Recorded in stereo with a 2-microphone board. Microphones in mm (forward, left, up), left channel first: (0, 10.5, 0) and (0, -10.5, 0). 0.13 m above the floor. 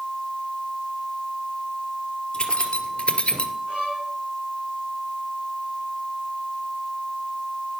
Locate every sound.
2.3 s keys jangling: 45° left (ahead or behind), 2.5 m; by 3.5 s 50° left (ahead or behind), 1.7 m
3.7 s a violin: 65° right (ahead or behind), 8.5 m